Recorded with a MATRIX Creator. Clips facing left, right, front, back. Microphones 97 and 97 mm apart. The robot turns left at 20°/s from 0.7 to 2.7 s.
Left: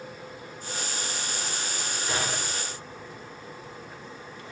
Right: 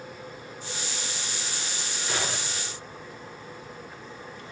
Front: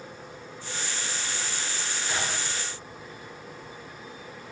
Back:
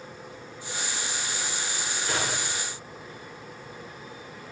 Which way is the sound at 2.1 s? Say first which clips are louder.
Even, back 2 dB; 140° left.